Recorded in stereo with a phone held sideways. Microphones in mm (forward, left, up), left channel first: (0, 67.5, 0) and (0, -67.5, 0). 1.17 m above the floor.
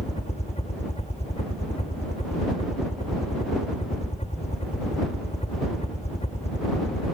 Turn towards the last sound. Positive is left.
turn(degrees=55)  # may be behind; listen again after turning